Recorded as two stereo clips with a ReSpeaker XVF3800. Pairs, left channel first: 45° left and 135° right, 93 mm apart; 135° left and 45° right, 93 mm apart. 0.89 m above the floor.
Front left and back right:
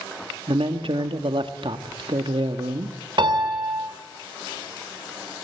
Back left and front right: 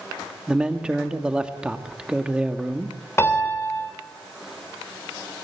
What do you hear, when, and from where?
0.5 s a man speaking: 125° right, 1.7 m
3.2 s a piano: 165° right, 3 m